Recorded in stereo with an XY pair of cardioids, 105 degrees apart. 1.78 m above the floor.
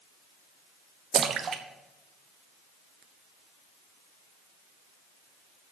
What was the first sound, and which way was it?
A splash, 50° right.